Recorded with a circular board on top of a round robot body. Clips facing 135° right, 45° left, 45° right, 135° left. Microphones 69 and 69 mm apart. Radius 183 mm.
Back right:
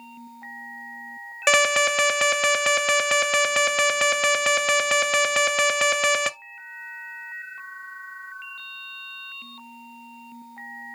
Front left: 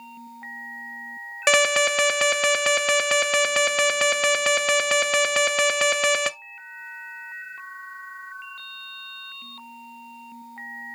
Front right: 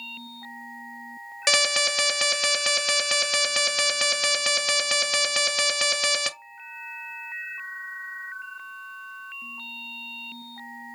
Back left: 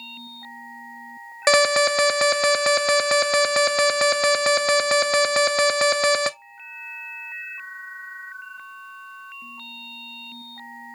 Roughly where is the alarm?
Behind left.